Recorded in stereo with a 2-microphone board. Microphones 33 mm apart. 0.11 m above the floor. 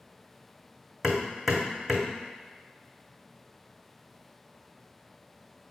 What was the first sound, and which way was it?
Hammering, 10° right (ahead or behind).